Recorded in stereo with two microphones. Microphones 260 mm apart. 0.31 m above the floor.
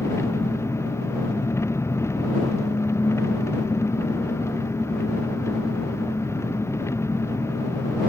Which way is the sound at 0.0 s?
10° left (ahead or behind).